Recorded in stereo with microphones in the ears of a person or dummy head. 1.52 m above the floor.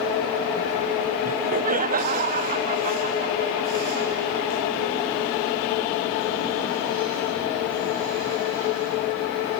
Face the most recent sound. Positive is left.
turn(degrees=-40)  # may be behind; listen again after turning